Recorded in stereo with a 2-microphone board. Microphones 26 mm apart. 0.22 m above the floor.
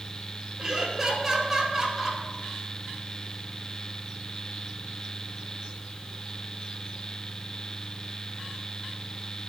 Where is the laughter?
5° right (ahead or behind), 4 m.